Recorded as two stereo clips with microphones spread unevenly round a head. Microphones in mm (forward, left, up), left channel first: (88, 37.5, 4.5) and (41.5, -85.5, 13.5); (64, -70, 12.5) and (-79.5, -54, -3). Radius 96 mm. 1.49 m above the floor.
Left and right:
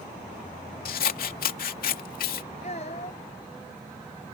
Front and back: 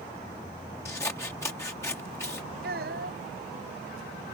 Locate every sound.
0.8 s scissors: 70° left
2.6 s a child speaking: 130° left